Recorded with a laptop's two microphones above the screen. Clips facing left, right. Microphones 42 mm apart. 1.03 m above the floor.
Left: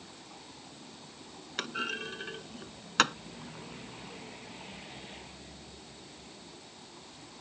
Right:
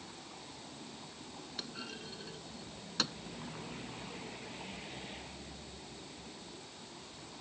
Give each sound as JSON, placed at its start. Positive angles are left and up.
{"t": 1.6, "sound": "a clunk", "side_deg": 60}